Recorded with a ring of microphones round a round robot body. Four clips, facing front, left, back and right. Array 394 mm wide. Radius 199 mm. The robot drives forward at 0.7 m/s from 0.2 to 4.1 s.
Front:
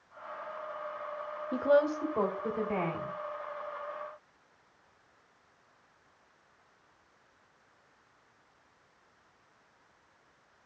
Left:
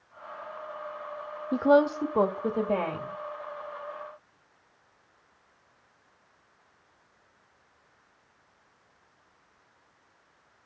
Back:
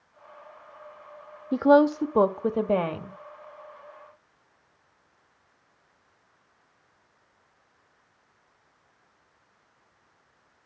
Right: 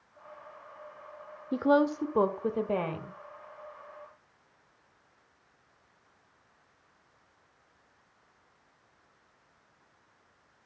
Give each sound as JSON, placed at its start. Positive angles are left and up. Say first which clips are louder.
{"t": 1.5, "sound": "a woman speaking", "louder": "left 3 dB, back 8 dB", "azimuth_deg": 175, "distance_m": 1.0}